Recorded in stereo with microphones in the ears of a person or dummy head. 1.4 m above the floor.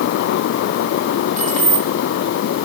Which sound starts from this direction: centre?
Keys jangling, at 1.4 s.